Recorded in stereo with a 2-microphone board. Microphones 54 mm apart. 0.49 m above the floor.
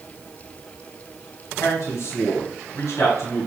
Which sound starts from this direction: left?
A man speaking, at 1.6 s.